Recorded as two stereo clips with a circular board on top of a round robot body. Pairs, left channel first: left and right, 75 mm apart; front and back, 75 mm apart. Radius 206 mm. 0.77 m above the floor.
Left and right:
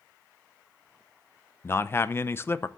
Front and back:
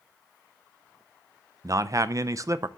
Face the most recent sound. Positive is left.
turn(degrees=145)